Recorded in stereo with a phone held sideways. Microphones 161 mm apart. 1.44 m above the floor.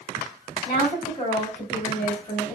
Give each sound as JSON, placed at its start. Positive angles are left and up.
{"t": 0.7, "sound": "a woman speaking", "side_deg": 35, "distance_m": 1.3}